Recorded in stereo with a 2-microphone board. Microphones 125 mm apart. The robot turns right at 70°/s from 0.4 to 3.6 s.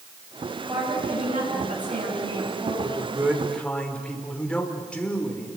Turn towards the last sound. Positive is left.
turn(degrees=10)